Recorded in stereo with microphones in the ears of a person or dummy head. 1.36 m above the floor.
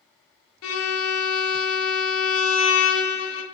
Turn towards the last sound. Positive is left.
turn(degrees=85)